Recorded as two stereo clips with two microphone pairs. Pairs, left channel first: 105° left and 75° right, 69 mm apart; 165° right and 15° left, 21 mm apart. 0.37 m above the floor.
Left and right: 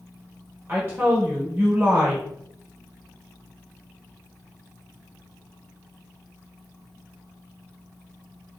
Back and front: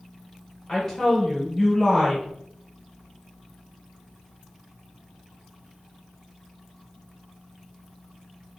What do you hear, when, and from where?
0.7 s a woman speaking: 100° right, 1.0 m